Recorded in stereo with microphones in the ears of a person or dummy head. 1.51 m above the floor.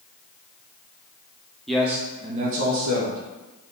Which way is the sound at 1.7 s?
Centre (ahead or behind).